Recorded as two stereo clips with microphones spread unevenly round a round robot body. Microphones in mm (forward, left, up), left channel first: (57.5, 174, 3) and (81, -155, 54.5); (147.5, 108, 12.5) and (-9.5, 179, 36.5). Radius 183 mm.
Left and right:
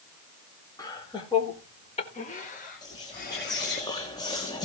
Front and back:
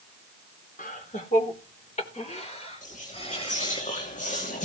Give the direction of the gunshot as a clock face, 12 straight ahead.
I don't hear a gunshot.